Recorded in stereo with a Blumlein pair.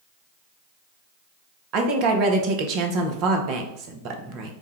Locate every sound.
1.7 s a woman speaking: 40° right, 0.8 m